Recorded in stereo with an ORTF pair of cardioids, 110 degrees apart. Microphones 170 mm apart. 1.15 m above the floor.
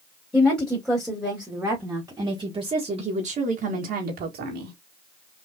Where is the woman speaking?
5° left, 2 m; by 4.8 s 75° right, 1.6 m.